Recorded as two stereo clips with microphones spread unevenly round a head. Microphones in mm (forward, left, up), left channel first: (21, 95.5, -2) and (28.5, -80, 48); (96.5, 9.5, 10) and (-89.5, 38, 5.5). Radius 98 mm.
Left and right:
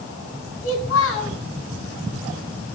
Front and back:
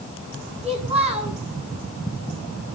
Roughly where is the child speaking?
Behind left.